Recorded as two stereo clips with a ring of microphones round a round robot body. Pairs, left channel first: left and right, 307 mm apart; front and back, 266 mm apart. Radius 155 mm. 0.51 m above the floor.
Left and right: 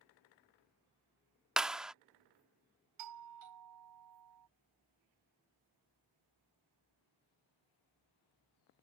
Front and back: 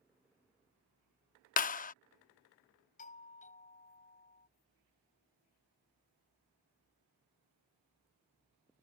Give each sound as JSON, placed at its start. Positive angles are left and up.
{"t": 1.6, "sound": "a clap", "azimuth_deg": -5}
{"t": 3.0, "sound": "a doorbell", "azimuth_deg": -65}